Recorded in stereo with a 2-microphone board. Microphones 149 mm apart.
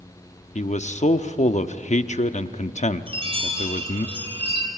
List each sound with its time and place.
0.6 s a man speaking: 50° left (ahead or behind), 0.8 m
3.1 s a chime: 40° right (ahead or behind), 3 m